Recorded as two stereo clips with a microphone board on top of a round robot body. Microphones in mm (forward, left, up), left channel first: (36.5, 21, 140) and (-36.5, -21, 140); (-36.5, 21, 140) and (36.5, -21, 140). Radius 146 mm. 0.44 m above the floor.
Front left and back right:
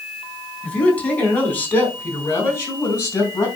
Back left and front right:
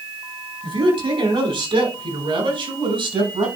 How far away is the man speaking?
About 4 m.